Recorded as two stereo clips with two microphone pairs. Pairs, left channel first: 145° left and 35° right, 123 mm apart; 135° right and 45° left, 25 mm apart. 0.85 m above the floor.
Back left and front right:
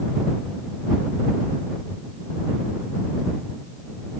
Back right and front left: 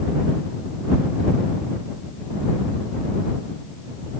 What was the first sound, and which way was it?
Only background noise.